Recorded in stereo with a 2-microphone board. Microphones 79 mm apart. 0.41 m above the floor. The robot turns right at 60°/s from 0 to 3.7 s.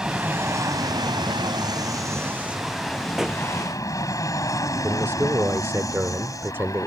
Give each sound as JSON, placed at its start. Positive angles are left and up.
{"t": 0.0, "sound": "an aircraft", "azimuth_deg": -170}
{"t": 3.2, "sound": "a pop", "side_deg": -5}
{"t": 4.8, "sound": "a man speaking", "side_deg": -30}